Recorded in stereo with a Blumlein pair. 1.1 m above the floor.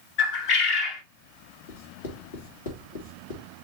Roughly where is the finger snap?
I don't hear a finger snap.